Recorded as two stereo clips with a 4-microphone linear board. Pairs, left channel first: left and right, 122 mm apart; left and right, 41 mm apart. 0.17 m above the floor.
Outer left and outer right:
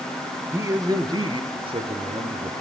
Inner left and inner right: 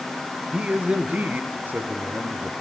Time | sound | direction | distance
0.5 | a man speaking | 25° right (ahead or behind) | 3 m